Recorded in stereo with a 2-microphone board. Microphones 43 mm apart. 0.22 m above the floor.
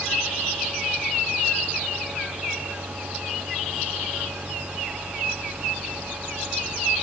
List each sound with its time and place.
Only background noise.